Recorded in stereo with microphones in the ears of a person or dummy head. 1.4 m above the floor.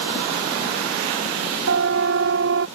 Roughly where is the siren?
Right.